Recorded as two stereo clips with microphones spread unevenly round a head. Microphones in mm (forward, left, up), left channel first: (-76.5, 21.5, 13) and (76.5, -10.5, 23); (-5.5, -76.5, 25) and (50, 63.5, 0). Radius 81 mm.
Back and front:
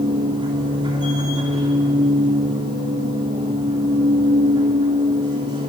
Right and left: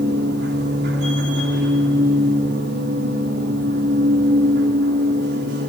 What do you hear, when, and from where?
0.0 s a machine running: 50° left, 3 m